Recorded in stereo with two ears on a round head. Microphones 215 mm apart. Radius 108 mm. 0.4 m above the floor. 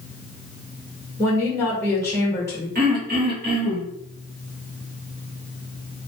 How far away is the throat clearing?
About 1.2 m.